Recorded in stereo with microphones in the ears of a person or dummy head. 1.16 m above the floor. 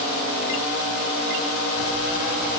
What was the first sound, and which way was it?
Only background noise.